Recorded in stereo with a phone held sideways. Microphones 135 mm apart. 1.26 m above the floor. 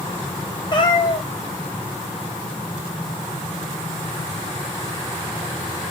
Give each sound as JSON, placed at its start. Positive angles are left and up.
{"t": 0.7, "sound": "a cat meowing", "side_deg": 35, "distance_m": 0.5}